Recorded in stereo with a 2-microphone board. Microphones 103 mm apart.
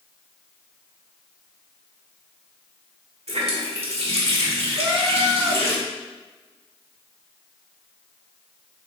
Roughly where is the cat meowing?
Centre.